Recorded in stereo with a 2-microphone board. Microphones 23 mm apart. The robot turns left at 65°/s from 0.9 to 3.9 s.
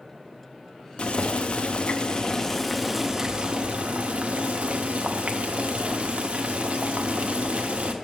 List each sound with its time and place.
1.0 s boiling: 115° left, 0.6 m; by 7.9 s 75° right, 0.6 m